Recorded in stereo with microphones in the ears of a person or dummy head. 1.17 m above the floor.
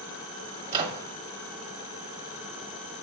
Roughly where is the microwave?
Right.